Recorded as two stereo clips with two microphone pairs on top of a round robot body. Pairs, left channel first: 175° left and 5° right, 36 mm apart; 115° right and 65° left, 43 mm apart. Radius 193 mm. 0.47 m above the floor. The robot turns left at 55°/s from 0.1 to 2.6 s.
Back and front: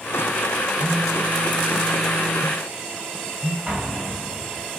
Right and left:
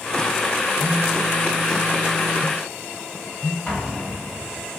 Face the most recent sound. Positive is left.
turn(degrees=-55)